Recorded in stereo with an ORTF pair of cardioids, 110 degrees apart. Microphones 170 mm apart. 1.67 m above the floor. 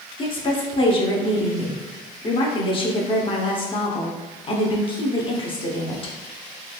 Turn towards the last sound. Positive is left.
turn(degrees=30)